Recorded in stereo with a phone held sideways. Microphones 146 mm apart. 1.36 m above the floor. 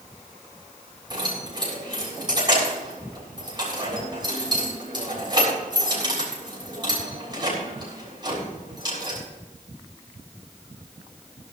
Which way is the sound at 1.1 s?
30° right (ahead or behind).